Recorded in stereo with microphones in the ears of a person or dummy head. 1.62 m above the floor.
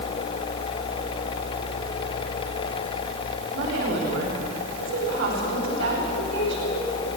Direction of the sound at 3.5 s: 80° right.